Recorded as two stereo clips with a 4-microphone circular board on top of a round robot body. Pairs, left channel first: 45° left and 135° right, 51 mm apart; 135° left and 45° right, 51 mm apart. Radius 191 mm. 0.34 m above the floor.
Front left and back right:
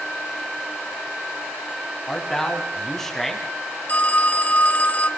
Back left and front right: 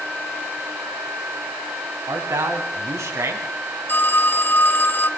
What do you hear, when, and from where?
2.1 s a man speaking: 30° right, 4 m; by 3.5 s 40° right, 3.5 m
3.9 s a phone ringing: 100° left, 0.9 m